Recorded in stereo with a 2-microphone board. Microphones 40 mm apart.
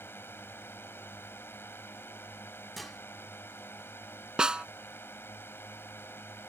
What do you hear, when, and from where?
0.0 s a drone: 65° left (ahead or behind)
2.8 s dishes clattering: centre (ahead or behind)
4.4 s a snare drum: 20° right (ahead or behind)